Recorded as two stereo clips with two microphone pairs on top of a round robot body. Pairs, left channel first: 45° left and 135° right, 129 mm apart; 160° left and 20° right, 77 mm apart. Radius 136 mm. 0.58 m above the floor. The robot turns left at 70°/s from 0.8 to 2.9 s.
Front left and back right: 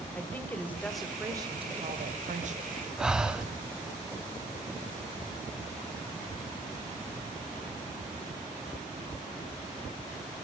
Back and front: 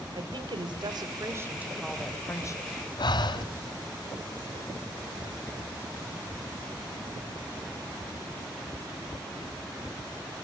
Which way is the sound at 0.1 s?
35° right.